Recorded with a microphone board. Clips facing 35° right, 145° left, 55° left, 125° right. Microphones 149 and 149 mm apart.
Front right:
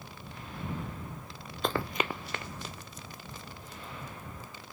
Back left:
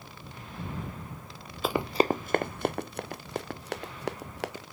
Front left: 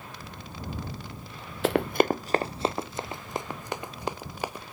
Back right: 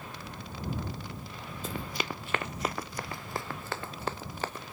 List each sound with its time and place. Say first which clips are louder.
1.6 s running footsteps: back left 6 dB, front left 14 dB; 60° left; by 4.7 s 135° left